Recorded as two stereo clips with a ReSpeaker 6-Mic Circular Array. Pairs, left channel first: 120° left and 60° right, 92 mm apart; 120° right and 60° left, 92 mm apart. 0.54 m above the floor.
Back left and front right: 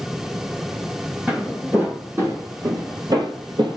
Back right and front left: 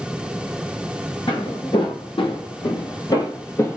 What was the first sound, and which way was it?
Footsteps, 130° right.